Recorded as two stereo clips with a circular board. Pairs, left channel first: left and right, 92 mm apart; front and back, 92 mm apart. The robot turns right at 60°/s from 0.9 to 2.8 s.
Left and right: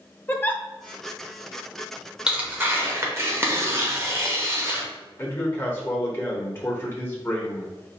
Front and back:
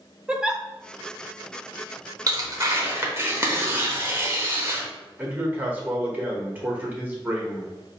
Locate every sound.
0.3 s a giggle: 110° left, 0.5 m
2.3 s tearing paper: 170° right, 0.9 m; by 4.8 s 135° right, 0.9 m
5.2 s a man speaking: 130° left, 1.3 m